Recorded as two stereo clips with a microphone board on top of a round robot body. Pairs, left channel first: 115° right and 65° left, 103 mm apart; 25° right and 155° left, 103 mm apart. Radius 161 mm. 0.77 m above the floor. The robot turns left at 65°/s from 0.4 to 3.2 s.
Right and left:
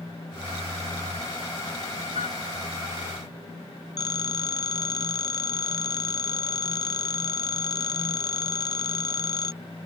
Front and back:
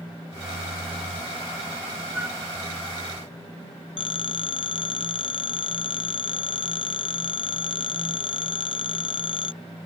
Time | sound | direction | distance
2.1 | a flute | 125° right | ?
4.0 | a phone ringing | 60° right | ?